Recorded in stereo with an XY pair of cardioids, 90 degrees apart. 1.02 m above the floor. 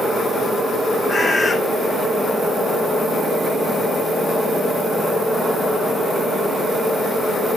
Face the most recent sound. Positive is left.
turn(degrees=40)